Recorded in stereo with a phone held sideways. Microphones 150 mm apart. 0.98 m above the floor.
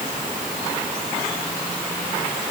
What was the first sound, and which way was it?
Only background noise.